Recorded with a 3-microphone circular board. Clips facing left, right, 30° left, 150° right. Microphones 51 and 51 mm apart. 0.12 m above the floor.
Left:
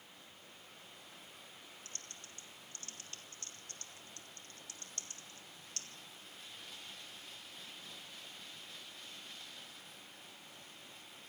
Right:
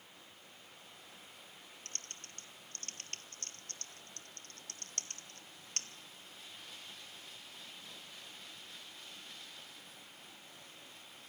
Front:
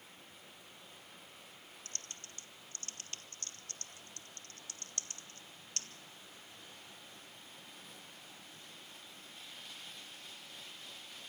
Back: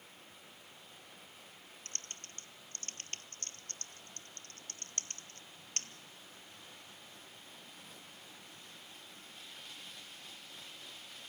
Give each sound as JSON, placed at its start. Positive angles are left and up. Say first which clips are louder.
{"t": 1.9, "sound": "typing on a keyboard", "louder": "right 2 dB, back 2 dB", "azimuth_deg": -110, "distance_m": 1.1}